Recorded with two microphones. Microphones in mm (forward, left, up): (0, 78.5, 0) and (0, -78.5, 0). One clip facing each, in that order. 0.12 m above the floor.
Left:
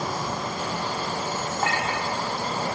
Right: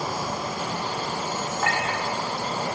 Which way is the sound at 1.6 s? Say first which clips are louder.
Even; 35° left (ahead or behind).